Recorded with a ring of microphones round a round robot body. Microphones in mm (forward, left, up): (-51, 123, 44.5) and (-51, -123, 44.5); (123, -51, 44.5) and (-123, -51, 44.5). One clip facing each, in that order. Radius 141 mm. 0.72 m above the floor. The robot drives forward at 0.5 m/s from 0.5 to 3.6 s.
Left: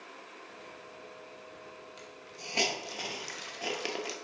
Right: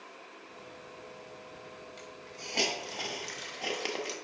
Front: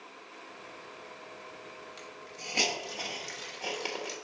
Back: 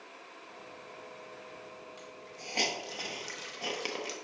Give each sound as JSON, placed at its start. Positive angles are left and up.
{"t": 2.0, "sound": "a hiss", "azimuth_deg": 15, "distance_m": 1.0}